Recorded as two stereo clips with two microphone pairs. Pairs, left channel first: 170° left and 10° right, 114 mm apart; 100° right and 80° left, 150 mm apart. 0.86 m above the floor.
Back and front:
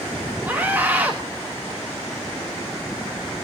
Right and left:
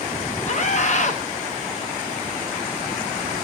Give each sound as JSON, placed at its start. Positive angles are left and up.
{"t": 0.5, "sound": "a scream", "azimuth_deg": -85, "distance_m": 1.1}